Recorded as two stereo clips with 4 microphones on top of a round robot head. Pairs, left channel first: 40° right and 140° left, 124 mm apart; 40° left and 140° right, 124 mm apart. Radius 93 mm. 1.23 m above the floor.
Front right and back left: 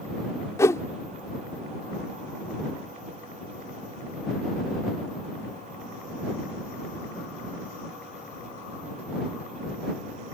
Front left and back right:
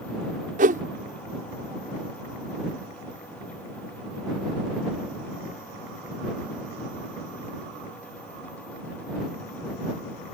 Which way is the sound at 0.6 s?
110° right.